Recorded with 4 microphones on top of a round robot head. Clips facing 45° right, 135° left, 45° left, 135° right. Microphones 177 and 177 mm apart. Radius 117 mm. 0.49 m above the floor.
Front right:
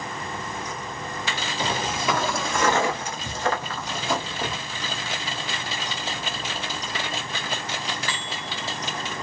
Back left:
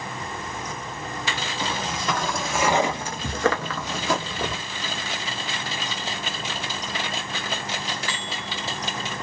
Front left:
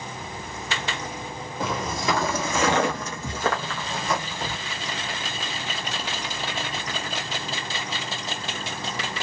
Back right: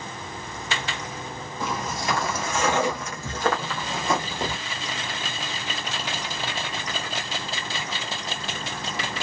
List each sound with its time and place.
1.6 s footsteps: 30° left, 1.0 m; by 4.6 s 170° left, 0.9 m